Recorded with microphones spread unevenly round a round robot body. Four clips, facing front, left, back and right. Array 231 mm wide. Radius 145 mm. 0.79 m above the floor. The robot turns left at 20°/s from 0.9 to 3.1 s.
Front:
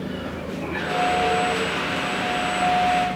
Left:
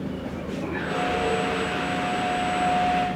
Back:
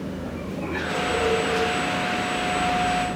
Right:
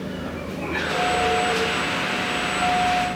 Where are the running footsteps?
No running footsteps in this recording.